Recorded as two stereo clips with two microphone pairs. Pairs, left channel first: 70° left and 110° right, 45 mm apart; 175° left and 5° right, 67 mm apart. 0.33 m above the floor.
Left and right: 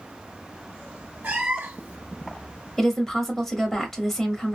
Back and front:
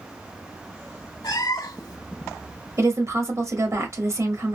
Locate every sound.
1.2 s a cat meowing: 170° right, 0.7 m
2.8 s a woman speaking: 10° right, 1.1 m